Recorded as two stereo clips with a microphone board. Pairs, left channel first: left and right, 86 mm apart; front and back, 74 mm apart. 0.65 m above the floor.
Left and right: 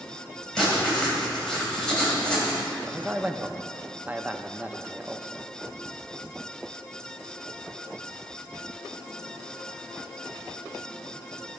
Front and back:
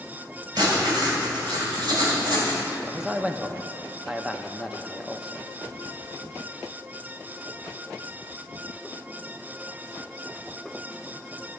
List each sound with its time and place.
0.6 s writing: 170° left, 3 m
2.9 s a man speaking: 115° right, 0.5 m